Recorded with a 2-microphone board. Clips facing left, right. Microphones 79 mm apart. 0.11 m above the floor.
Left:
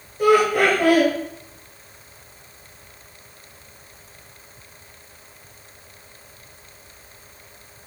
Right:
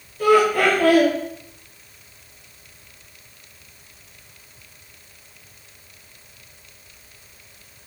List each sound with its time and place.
0.2 s laughter: 20° left (ahead or behind), 1.5 m